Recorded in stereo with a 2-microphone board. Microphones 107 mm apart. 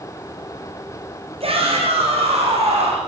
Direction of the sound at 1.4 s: 65° right (ahead or behind).